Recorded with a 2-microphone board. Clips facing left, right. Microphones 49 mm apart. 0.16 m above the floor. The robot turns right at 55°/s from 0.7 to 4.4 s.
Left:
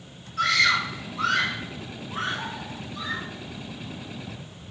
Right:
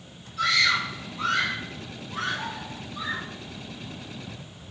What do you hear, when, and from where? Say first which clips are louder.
0.4 s a scream: left 2 dB; 60° left (ahead or behind), 5.5 m; by 3.3 s 25° right (ahead or behind), 5.5 m